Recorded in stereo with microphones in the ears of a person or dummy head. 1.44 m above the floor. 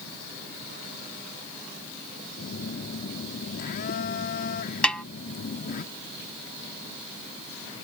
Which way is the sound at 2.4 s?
50° left (ahead or behind).